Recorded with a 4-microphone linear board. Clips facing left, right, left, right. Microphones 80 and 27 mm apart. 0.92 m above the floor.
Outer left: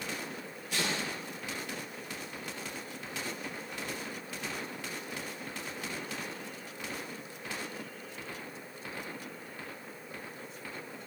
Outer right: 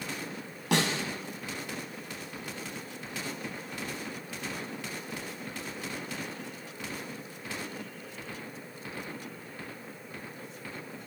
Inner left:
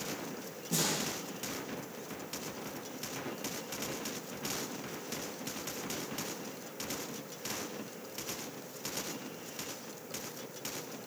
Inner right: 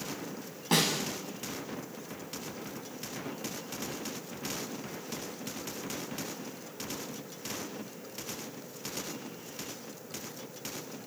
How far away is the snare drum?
About 7 m.